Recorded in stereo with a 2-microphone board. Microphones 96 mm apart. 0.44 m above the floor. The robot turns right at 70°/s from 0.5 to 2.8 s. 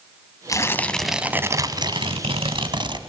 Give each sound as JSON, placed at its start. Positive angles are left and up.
{"t": 0.5, "sound": "tearing paper", "azimuth_deg": 140, "distance_m": 1.1}